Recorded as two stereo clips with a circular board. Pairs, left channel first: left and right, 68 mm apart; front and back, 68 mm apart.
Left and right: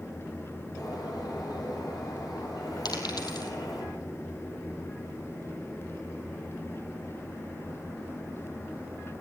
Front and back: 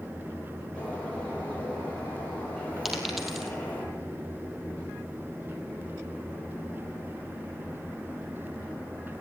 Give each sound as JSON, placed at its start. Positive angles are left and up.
{"t": 0.8, "sound": "a bird", "azimuth_deg": 75, "distance_m": 8.0}
{"t": 2.9, "sound": "a dropped coin", "azimuth_deg": 95, "distance_m": 3.0}